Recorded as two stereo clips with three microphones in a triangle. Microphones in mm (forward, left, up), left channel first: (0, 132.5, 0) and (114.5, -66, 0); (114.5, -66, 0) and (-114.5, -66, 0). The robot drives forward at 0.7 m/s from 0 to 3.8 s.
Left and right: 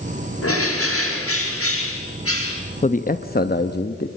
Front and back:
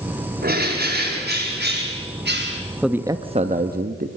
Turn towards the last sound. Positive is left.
turn(degrees=150)